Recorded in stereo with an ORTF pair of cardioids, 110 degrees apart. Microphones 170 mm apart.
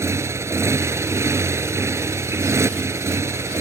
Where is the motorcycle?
15° right.